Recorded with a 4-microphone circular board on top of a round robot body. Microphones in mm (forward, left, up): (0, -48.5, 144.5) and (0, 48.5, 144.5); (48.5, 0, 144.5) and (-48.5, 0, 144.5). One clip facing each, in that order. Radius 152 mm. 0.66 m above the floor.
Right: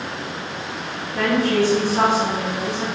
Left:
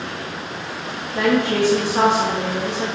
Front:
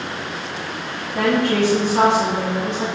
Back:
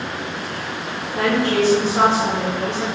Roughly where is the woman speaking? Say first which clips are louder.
Left 1 dB, front 1 dB; ahead left.